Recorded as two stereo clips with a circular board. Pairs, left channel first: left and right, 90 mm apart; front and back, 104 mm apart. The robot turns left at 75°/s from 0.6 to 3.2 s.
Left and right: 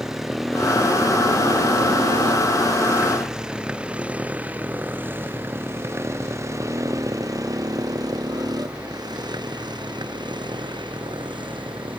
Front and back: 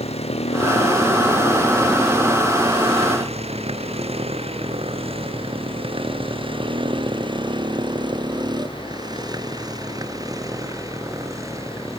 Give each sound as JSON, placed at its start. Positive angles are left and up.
{"t": 0.0, "sound": "a motorcycle", "azimuth_deg": -5}